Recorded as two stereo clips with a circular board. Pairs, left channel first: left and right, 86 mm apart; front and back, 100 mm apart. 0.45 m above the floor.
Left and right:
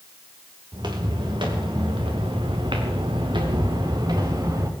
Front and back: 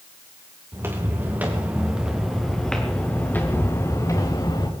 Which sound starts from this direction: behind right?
Footsteps, at 0.7 s.